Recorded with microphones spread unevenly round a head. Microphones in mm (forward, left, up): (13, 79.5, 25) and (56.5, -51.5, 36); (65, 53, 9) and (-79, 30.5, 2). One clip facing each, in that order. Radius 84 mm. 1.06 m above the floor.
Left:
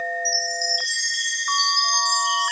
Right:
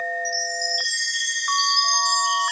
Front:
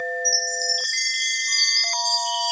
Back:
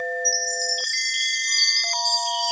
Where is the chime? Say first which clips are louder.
Even, even; 150° right, 2.5 m.